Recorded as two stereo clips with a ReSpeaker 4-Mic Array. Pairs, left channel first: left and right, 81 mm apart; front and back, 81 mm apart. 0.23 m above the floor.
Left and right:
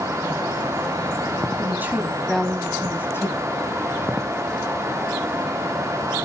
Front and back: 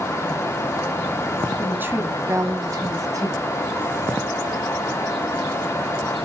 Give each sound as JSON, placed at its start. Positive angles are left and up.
{"t": 1.6, "sound": "a woman speaking", "azimuth_deg": -120, "distance_m": 1.6}